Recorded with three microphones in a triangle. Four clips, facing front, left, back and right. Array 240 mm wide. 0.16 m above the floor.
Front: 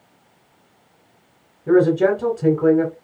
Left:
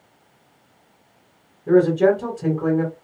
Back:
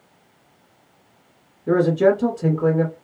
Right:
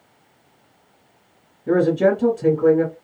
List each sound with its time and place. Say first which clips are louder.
1.7 s a man speaking: left 1 dB, front 2 dB; 25° right, 1.5 m